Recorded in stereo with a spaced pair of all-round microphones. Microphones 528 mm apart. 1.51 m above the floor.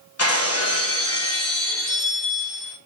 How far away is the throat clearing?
I don't hear throat clearing.